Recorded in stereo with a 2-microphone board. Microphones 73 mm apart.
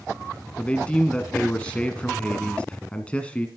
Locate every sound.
0.6 s a man speaking: 15° left (ahead or behind), 1.2 m